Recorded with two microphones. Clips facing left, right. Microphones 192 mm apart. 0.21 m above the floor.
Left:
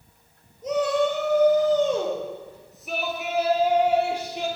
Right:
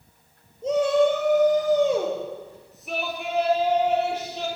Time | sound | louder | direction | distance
0.6 | a shout | right 3 dB | 30° right (ahead or behind) | 4.5 m